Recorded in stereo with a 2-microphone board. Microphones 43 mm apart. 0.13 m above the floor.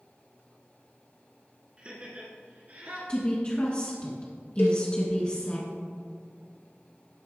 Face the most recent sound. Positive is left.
turn(degrees=65)  # may be behind; listen again after turning